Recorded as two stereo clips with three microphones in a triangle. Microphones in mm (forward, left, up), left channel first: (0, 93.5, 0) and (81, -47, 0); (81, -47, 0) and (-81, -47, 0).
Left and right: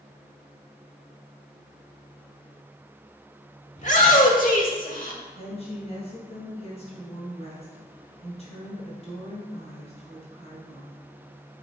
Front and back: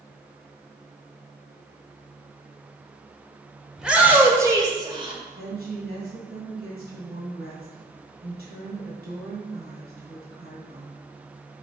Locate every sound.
3.8 s a shout: 95° left, 1.6 m; by 5.2 s 130° left, 1.8 m
5.3 s a woman speaking: 170° left, 3 m